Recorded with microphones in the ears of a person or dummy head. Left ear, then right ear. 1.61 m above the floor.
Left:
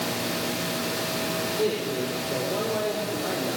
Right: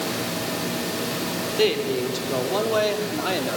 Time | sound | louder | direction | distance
1.6 | a man speaking | right 8 dB | 65° right (ahead or behind) | 5.5 m